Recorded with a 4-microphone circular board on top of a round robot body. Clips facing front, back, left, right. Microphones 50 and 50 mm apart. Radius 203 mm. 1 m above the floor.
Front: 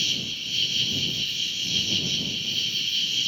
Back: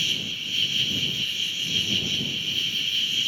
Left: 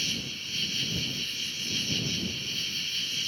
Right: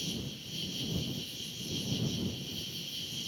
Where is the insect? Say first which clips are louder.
Back 1 dB, left 6 dB; 110° left.